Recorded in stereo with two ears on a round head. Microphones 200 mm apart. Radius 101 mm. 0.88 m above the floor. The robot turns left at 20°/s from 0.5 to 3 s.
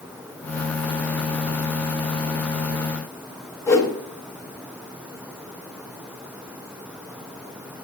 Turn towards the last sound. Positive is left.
turn(degrees=10)  # may be behind; listen again after turning